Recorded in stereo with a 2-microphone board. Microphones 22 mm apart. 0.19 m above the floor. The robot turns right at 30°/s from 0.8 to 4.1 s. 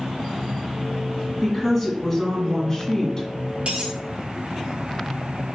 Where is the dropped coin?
70° right (ahead or behind), 1.7 m; by 3.9 s 60° right (ahead or behind), 1.7 m.